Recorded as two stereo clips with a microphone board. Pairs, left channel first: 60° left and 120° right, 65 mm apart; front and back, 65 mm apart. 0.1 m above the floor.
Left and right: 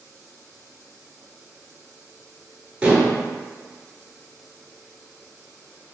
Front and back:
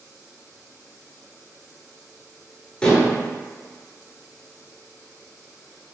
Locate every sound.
2.8 s dishes clattering: 60° right, 0.9 m